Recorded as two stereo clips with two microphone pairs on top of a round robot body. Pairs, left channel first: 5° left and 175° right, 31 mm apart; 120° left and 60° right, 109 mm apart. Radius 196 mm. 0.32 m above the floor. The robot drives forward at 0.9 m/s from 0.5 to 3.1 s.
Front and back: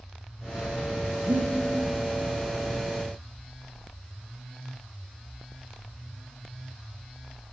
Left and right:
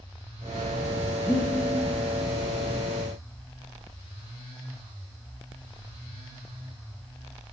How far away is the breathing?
About 6 m.